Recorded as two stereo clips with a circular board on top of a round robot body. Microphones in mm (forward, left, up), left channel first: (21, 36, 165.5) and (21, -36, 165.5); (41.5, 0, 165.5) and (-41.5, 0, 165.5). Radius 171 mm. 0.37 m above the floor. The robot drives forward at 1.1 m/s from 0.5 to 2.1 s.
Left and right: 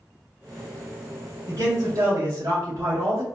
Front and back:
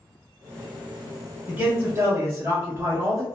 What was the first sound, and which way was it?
A man speaking, 105° right.